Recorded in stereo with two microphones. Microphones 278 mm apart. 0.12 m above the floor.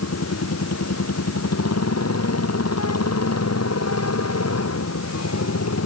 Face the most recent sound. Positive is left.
turn(degrees=65)  # may be behind; listen again after turning